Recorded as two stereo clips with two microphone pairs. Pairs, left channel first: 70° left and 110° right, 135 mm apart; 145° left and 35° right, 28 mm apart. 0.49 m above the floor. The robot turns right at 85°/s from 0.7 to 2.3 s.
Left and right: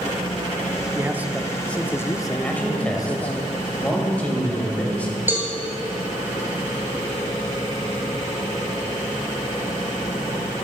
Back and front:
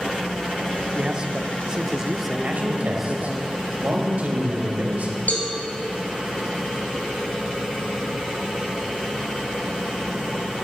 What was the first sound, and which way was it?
A man speaking, 70° right.